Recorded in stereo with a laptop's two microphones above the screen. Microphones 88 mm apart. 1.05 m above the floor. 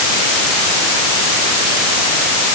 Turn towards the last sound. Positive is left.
No sound to turn to.